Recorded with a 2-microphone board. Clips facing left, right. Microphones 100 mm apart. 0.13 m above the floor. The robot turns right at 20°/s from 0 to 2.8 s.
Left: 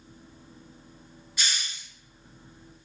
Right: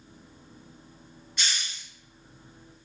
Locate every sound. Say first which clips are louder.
1.4 s a hiss: even; centre (ahead or behind), 2.0 m; by 1.9 s 10° left (ahead or behind), 2.0 m